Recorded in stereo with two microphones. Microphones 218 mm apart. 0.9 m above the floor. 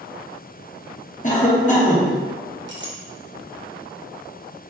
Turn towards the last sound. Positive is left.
turn(degrees=-55)  # may be behind; listen again after turning